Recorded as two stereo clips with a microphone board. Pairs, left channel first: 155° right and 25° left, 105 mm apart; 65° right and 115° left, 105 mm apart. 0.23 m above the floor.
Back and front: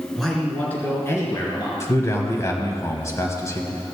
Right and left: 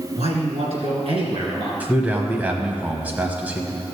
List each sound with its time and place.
0.2 s a man speaking: 110° left, 3 m; by 1.7 s 155° left, 4 m
1.8 s a man speaking: 175° left, 1.3 m